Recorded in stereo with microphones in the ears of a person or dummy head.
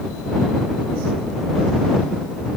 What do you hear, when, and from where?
Only background noise.